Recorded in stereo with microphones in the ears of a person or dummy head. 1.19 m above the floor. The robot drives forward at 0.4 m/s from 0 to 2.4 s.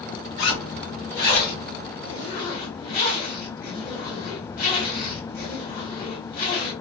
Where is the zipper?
60° left (ahead or behind), 1.8 m; by 6.7 s 45° left (ahead or behind), 2 m.